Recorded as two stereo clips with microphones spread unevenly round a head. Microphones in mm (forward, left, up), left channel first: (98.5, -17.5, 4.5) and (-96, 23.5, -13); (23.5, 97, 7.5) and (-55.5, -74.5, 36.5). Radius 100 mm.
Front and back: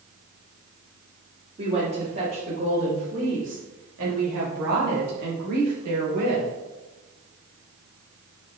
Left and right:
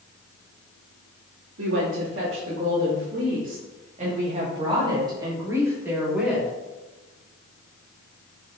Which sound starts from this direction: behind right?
A woman speaking, at 1.6 s.